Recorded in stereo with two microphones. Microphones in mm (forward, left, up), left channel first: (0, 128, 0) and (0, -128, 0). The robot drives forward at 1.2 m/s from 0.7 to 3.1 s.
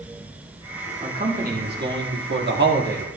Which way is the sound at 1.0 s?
30° right (ahead or behind).